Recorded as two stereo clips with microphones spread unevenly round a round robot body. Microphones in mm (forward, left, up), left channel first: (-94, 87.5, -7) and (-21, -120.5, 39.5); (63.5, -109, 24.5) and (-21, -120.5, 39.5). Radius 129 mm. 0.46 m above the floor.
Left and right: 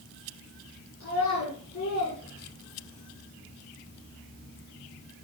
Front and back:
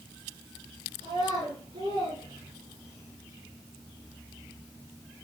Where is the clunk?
No clunk in this recording.